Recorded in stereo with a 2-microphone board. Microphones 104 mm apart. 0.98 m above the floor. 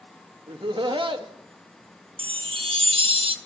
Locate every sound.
0.5 s laughter: 50° right (ahead or behind), 1.3 m
2.2 s a chime: 55° right (ahead or behind), 0.7 m